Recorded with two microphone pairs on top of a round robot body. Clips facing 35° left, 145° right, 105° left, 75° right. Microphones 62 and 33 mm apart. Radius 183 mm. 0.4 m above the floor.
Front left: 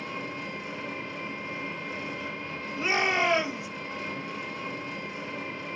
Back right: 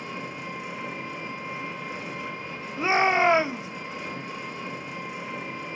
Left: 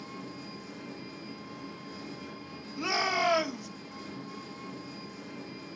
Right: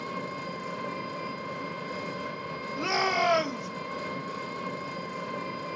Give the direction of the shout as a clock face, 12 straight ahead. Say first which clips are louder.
Back right 5 dB, right 2 dB; 5 o'clock.